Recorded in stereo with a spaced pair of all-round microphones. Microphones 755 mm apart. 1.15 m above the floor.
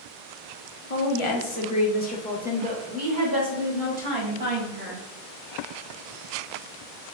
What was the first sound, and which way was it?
A woman speaking, 50° left (ahead or behind).